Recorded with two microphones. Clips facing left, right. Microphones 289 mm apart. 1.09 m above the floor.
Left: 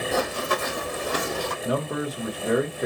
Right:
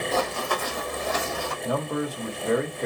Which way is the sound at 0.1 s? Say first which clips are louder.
Left 2 dB; 15° left (ahead or behind).